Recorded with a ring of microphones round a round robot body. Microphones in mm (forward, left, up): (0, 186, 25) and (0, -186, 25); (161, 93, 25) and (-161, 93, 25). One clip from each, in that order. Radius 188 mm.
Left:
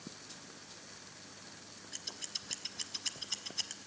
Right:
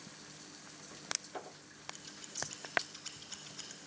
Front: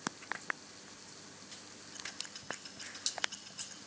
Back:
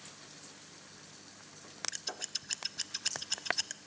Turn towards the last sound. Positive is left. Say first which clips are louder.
# left 9 dB, even
turn(degrees=165)